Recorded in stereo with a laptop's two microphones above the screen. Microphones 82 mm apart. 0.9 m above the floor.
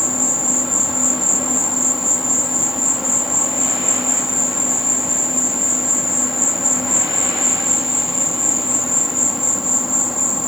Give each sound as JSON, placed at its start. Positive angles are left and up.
{"t": 0.0, "sound": "an insect", "side_deg": -5}